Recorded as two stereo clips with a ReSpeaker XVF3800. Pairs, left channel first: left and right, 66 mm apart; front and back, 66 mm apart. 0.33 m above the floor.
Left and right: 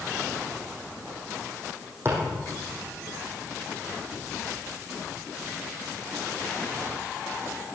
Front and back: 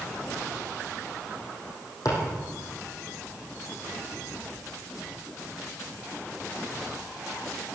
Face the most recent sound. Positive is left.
turn(degrees=-35)